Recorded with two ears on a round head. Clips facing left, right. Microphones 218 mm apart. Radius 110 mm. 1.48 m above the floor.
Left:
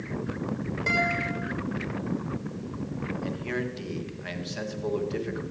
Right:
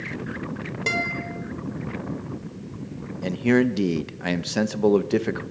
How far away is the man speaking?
About 1.8 m.